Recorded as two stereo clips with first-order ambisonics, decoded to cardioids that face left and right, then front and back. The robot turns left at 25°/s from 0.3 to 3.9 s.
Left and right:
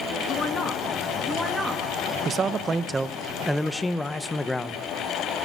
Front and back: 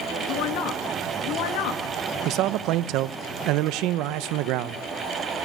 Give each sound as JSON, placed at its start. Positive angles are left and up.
{"t": 0.3, "sound": "a woman speaking", "azimuth_deg": 30, "distance_m": 2.0}
{"t": 2.2, "sound": "a man speaking", "azimuth_deg": -150, "distance_m": 0.7}